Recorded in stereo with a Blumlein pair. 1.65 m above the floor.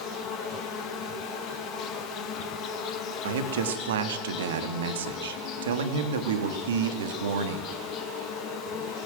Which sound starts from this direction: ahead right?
A man speaking, at 3.2 s.